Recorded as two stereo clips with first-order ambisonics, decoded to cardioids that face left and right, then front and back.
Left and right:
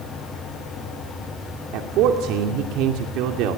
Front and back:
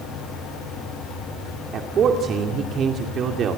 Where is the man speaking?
120° right, 2.5 m.